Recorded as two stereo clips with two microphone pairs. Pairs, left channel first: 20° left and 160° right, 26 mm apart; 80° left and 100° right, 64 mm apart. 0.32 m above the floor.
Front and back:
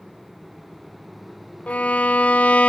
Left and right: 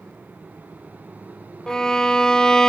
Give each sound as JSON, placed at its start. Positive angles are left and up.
{"t": 1.7, "sound": "a violin", "azimuth_deg": 5, "distance_m": 0.6}